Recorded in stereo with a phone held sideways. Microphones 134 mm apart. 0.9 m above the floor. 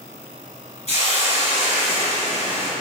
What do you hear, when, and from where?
0.9 s a hiss: 50° left (ahead or behind), 1.3 m